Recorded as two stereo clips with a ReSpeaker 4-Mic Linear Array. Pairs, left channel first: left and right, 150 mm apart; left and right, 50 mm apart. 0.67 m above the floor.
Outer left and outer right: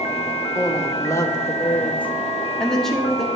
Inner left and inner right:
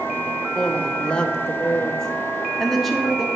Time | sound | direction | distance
0.6 | a woman speaking | 20° left (ahead or behind) | 0.9 m